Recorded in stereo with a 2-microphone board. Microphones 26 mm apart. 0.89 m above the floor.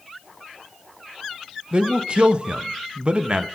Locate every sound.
1.7 s a man speaking: 45° right (ahead or behind), 0.5 m